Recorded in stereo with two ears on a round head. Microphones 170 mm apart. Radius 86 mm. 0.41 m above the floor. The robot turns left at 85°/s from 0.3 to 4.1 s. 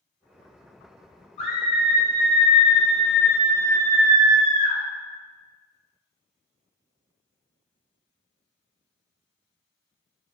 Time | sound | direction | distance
1.4 | a scream | 95° left | 1.0 m